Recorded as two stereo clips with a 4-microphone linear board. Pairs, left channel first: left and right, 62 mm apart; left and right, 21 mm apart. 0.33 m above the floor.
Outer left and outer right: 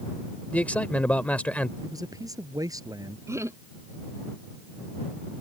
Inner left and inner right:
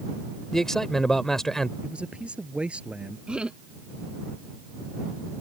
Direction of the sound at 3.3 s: 50° right (ahead or behind).